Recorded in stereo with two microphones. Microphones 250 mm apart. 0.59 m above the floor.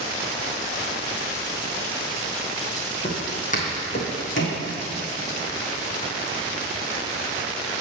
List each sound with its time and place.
3.0 s footsteps: 20° left (ahead or behind), 1.9 m; by 4.6 s 55° left (ahead or behind), 1.7 m